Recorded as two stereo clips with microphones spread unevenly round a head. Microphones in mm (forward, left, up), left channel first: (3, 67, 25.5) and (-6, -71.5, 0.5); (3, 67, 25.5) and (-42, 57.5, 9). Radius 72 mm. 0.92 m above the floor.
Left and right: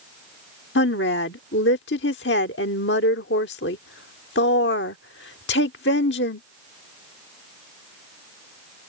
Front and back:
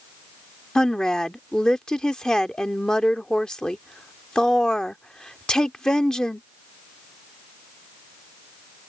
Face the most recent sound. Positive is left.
turn(degrees=90)